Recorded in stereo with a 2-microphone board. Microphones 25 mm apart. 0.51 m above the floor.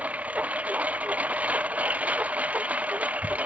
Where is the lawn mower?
75° right (ahead or behind).